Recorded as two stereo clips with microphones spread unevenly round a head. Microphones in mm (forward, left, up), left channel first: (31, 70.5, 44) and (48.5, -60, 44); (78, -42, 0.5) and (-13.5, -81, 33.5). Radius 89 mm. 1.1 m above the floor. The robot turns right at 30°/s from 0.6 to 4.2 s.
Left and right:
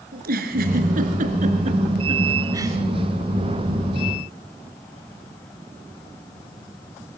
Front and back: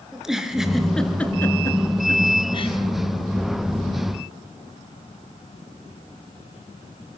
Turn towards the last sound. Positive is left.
turn(degrees=30)